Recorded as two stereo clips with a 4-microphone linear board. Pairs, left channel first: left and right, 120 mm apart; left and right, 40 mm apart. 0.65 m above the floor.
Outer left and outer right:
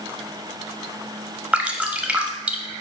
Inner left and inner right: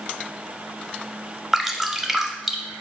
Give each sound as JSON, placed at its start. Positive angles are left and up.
{"t": 1.5, "sound": "dripping", "side_deg": -10, "distance_m": 0.6}